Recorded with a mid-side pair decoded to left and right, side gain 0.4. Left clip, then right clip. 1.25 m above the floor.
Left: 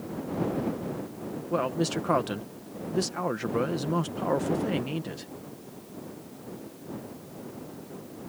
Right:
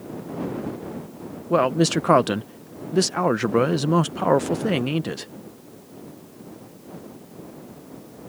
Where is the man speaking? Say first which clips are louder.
Right 9 dB; 65° right.